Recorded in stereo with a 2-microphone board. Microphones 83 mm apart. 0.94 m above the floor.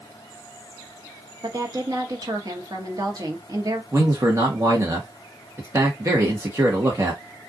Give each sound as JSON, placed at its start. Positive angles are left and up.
{"t": 1.4, "sound": "a woman speaking", "side_deg": -50, "distance_m": 1.4}
{"t": 3.9, "sound": "a man speaking", "side_deg": -35, "distance_m": 1.3}